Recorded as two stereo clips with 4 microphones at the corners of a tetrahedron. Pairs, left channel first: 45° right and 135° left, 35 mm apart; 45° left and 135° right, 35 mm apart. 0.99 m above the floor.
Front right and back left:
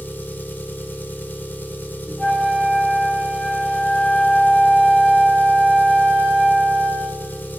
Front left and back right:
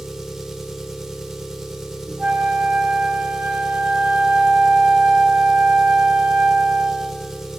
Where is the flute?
90° right, 7.5 m.